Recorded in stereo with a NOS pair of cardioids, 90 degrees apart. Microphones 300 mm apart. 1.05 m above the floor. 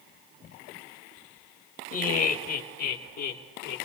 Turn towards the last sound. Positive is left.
turn(degrees=75)